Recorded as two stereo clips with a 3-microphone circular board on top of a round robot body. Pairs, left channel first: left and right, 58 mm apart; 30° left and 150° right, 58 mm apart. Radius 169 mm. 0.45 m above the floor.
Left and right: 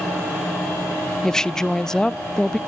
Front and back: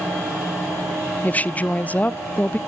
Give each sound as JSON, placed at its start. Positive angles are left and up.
{"t": 1.2, "sound": "a woman speaking", "azimuth_deg": 25, "distance_m": 0.7}